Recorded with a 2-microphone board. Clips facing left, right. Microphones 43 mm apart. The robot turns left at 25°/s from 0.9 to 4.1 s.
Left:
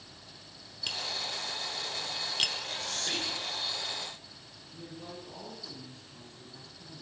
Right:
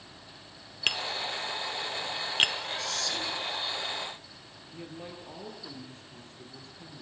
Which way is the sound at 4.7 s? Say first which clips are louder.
Right 2 dB; 45° right (ahead or behind).